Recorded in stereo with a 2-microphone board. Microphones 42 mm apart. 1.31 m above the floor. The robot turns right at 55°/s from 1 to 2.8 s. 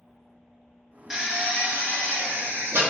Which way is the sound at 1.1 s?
165° right.